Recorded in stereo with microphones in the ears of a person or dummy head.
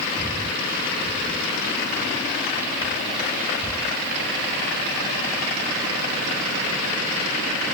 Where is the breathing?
10° right (ahead or behind).